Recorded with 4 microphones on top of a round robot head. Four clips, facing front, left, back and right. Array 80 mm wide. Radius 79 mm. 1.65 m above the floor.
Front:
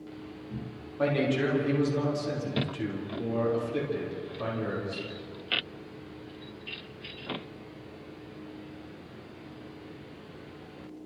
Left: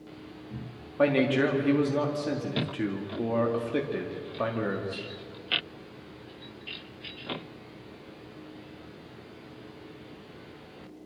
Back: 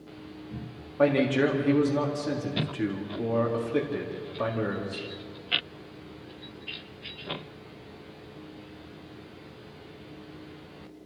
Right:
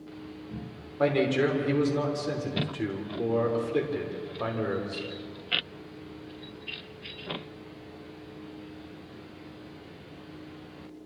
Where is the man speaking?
125° left, 4.5 m.